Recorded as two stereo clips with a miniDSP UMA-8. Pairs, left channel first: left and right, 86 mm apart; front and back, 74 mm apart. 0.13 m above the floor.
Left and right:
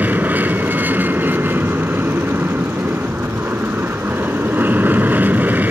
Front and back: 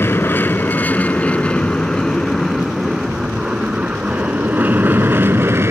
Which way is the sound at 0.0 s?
35° right.